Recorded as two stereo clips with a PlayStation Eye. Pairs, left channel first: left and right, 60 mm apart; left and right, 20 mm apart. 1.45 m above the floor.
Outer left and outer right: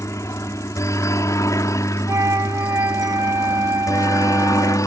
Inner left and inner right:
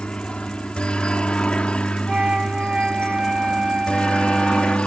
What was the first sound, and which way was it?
A helicopter, 55° left (ahead or behind).